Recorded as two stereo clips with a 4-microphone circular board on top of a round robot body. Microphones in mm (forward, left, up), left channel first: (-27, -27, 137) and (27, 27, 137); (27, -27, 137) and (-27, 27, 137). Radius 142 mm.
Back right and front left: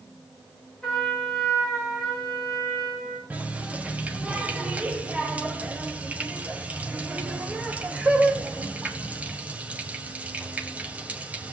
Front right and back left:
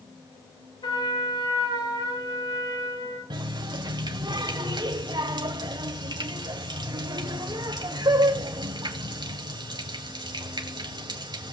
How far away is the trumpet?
About 8.5 m.